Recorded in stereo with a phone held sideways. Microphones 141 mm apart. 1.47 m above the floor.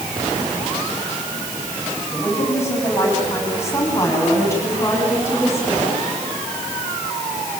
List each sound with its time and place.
2.1 s a woman speaking: 20° left (ahead or behind), 9 m